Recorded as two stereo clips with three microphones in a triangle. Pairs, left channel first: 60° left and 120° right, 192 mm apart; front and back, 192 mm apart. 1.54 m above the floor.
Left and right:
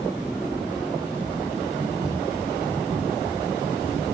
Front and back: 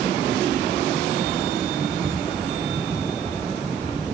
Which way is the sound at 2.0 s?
155° left.